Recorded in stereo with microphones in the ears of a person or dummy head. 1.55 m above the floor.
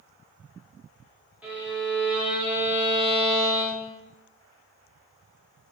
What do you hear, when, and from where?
1.4 s a violin: 5° right (ahead or behind), 0.6 m